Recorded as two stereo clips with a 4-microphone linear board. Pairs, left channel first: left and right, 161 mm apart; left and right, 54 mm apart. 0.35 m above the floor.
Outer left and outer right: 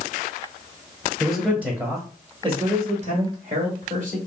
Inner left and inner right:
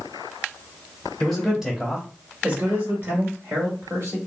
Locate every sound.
1.2 s a man speaking: 5° left (ahead or behind), 1.0 m; by 4.2 s 60° right (ahead or behind), 1.9 m